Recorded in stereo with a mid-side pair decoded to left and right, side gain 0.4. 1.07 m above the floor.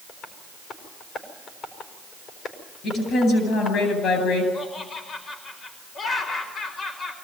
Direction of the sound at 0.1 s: 65° left.